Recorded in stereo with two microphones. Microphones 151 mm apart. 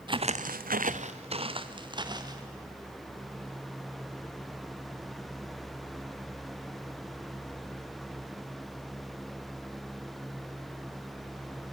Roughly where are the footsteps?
Right.